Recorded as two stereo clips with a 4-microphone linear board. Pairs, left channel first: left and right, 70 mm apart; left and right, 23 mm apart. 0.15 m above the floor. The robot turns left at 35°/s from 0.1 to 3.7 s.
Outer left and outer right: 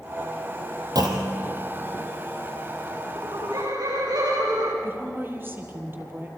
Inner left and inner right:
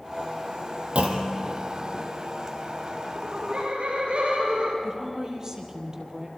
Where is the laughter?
80° right, 8 m; by 4.7 s 75° right (ahead or behind), 8 m.